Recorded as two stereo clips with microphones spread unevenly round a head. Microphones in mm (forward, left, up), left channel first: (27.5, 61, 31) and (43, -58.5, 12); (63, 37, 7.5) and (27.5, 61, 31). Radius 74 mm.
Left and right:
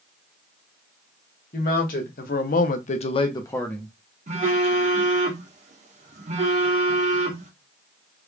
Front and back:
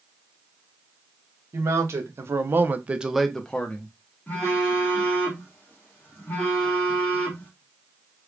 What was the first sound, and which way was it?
A man speaking, 130° left.